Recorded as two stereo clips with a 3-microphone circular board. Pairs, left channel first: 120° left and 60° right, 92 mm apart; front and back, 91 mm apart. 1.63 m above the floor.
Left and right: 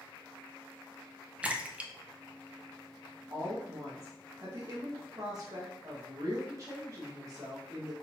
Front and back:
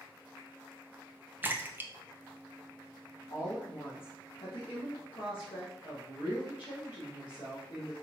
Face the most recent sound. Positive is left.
turn(degrees=-10)